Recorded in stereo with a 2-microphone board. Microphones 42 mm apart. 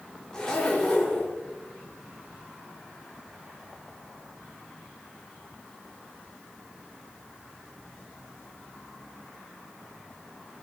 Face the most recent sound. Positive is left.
turn(degrees=15)  # may be behind; listen again after turning